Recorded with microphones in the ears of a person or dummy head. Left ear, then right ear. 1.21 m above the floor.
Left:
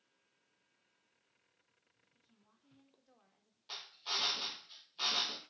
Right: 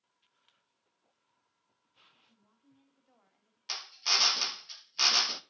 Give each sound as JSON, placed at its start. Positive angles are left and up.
{"t": 2.1, "sound": "a woman speaking", "side_deg": -15, "distance_m": 2.0}
{"t": 3.7, "sound": "a drill", "side_deg": -65, "distance_m": 0.8}